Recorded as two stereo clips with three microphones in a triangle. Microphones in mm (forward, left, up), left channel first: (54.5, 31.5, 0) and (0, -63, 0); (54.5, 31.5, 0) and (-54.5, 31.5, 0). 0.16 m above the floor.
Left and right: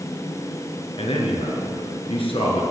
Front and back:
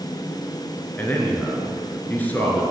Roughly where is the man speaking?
Left.